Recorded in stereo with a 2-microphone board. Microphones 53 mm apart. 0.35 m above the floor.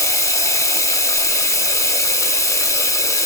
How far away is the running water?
About 1.0 m.